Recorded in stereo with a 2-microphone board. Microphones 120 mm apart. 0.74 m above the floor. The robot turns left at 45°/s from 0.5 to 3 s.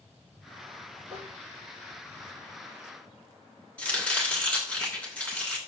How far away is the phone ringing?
No phone ringing in this recording.